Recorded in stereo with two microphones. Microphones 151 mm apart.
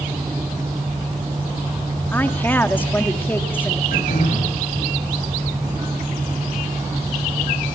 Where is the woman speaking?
15° left (ahead or behind), 1.6 m.